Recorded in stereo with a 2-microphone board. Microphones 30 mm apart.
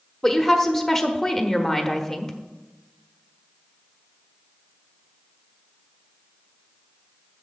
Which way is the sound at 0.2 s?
15° left (ahead or behind).